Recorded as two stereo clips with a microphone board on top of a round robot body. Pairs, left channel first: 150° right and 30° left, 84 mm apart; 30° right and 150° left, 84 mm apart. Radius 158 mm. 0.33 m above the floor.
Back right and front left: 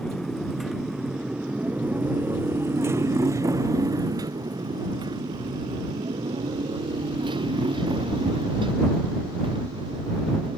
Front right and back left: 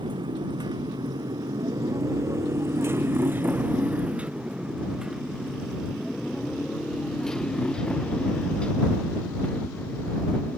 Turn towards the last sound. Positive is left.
turn(degrees=40)